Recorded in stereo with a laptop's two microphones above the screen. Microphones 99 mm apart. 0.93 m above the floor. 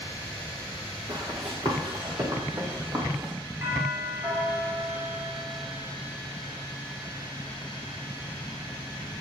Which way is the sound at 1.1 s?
50° right (ahead or behind).